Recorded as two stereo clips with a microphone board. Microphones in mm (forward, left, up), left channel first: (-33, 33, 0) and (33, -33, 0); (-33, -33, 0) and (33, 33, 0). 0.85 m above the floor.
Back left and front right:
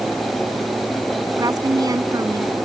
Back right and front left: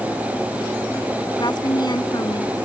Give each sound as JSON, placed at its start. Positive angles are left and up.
{"t": 1.4, "sound": "a woman speaking", "azimuth_deg": -95}